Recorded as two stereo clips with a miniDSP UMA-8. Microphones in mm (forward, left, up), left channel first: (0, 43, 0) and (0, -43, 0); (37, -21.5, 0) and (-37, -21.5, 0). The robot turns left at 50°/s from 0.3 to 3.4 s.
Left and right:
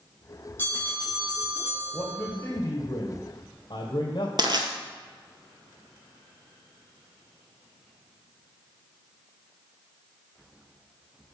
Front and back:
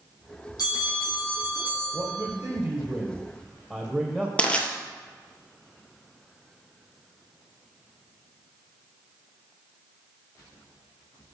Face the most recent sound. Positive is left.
turn(degrees=-70)